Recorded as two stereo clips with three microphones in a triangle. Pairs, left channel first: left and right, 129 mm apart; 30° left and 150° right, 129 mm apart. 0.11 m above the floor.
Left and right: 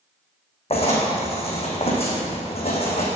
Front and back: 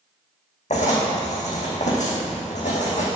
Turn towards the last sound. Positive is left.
turn(degrees=55)